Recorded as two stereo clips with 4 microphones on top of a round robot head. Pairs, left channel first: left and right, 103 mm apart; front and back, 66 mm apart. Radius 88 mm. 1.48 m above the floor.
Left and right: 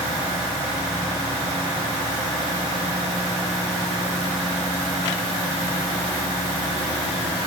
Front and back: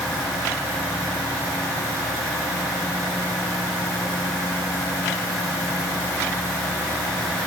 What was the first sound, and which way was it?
Only background noise.